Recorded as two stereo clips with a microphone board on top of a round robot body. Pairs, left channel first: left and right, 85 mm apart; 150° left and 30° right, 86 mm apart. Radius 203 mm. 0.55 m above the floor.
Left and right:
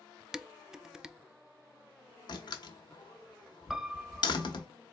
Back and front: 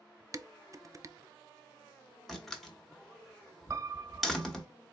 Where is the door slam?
65° left, 1.0 m.